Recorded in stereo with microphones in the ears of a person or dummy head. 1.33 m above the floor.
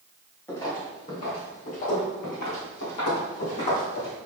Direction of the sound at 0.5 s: 15° left (ahead or behind).